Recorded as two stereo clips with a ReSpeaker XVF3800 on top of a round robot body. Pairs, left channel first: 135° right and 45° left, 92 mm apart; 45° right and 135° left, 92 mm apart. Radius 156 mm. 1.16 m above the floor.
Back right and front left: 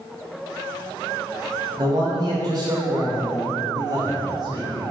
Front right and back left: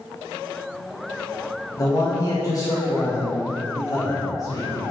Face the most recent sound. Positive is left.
turn(degrees=0)